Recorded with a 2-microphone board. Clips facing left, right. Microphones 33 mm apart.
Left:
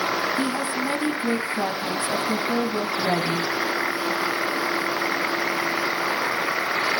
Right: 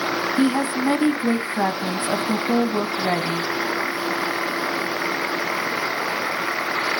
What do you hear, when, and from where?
0.4 s a woman speaking: 40° right (ahead or behind), 1.9 m